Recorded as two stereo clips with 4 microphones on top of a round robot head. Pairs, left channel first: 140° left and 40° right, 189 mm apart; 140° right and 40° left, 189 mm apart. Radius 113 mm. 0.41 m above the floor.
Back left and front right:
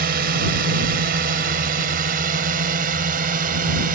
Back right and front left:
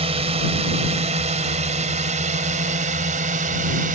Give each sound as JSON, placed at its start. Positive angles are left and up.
{"t": 0.0, "sound": "a drone", "azimuth_deg": -15}